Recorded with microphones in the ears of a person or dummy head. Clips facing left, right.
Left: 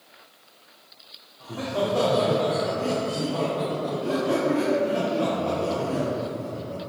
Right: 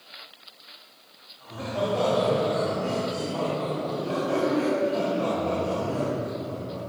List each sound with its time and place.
1.4 s laughter: 65° left (ahead or behind), 2.5 m; by 6.8 s 35° left (ahead or behind), 5.5 m